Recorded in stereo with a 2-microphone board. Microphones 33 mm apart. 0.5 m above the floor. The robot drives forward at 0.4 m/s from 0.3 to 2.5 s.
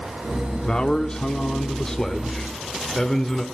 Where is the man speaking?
30° left (ahead or behind), 0.7 m; by 3.5 s 20° left (ahead or behind), 1.1 m.